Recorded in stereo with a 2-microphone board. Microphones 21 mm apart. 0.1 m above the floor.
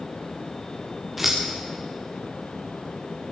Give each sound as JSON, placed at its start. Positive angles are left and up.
{"t": 1.2, "sound": "scissors", "side_deg": -5, "distance_m": 3.5}